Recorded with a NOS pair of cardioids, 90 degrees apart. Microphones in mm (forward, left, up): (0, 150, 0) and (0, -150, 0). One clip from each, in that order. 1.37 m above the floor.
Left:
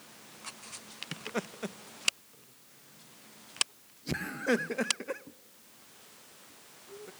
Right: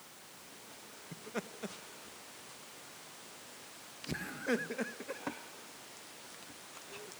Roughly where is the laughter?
Ahead left.